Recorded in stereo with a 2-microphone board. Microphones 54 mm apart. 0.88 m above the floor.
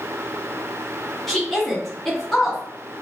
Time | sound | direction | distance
1.3 | a woman speaking | 5° left (ahead or behind) | 1.6 m